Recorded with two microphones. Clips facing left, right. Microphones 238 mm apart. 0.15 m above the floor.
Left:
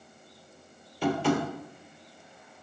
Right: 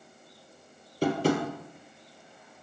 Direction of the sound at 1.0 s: 45° right (ahead or behind).